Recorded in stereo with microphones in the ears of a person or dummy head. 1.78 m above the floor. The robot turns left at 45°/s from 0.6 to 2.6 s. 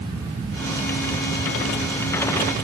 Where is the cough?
No cough in this recording.